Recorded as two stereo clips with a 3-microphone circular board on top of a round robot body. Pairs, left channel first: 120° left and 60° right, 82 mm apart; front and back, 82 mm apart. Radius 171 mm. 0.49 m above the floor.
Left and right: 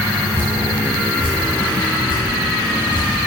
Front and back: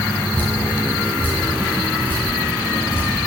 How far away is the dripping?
About 3 m.